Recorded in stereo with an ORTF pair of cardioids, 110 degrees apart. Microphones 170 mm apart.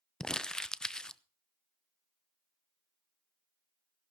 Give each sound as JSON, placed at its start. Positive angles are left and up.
{"t": 0.2, "sound": "crumpling", "azimuth_deg": 5, "distance_m": 0.7}